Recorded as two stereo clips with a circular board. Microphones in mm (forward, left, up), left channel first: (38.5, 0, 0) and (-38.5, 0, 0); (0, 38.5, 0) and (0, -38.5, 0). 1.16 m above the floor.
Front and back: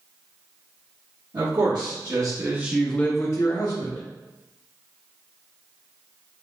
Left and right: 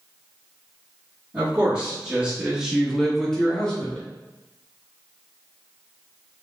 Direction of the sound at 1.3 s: 165° right.